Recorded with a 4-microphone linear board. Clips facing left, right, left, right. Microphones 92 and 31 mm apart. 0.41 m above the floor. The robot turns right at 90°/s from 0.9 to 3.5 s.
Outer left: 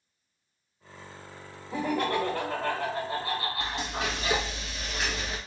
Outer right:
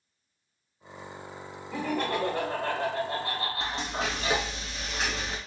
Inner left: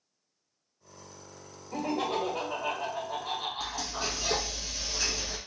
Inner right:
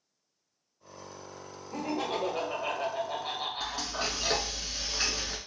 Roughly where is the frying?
Right.